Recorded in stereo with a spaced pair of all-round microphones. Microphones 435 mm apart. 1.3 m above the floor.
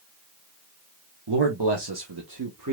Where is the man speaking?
70° right (ahead or behind), 1.3 m; by 2.7 s 45° right (ahead or behind), 1.4 m.